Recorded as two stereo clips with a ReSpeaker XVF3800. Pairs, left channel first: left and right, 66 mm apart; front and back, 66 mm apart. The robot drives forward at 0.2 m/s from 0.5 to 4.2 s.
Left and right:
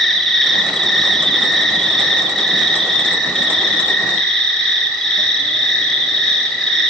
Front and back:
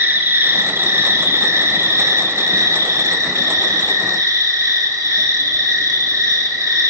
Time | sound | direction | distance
0.0 | an insect | 175° left | 1.0 m